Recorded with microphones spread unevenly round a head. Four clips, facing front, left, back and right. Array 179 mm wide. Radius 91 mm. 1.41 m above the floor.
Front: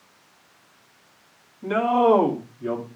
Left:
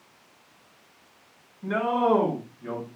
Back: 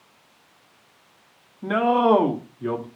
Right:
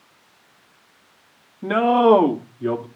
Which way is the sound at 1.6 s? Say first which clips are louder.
Right 8 dB, even; 100° right.